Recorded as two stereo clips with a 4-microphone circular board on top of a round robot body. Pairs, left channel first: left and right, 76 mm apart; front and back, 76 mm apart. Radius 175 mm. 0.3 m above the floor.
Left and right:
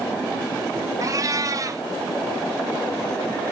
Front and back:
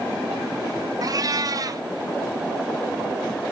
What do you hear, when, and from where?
1.0 s a cat meowing: 140° right, 0.9 m